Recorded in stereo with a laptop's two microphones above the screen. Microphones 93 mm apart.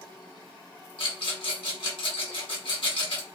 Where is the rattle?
65° left (ahead or behind), 1.0 m.